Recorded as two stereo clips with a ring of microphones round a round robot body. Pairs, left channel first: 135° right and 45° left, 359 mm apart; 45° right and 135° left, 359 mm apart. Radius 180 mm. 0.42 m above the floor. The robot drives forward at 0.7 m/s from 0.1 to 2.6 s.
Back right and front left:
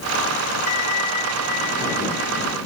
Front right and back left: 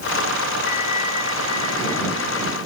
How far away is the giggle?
I don't hear a giggle.